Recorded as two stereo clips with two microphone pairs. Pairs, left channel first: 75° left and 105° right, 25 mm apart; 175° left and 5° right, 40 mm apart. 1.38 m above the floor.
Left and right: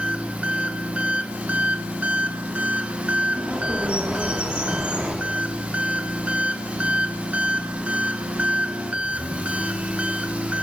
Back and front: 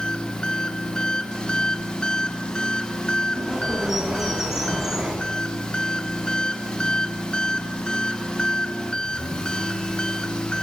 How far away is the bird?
About 1.7 m.